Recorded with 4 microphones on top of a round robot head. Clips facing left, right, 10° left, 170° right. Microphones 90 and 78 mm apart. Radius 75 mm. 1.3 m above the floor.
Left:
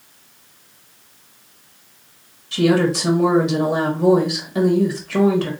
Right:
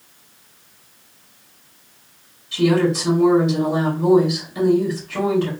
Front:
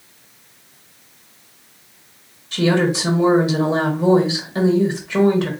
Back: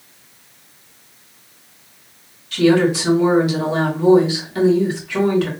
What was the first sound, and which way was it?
A woman speaking, 75° left.